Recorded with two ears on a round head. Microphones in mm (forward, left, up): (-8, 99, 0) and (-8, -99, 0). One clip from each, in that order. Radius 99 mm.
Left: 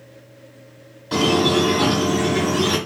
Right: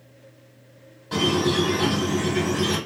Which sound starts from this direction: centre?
A squeak, at 1.1 s.